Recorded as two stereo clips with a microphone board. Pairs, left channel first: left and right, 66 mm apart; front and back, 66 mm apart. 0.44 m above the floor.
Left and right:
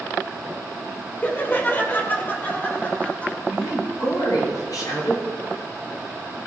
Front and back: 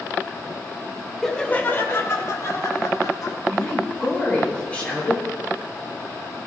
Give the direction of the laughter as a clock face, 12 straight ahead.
9 o'clock.